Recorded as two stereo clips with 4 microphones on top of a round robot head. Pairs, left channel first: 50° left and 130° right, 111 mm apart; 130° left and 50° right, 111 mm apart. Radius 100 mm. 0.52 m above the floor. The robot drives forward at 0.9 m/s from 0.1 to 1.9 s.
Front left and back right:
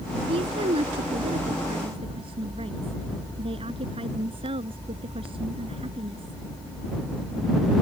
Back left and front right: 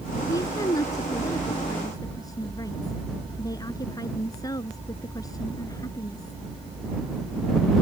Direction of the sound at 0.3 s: 170° right.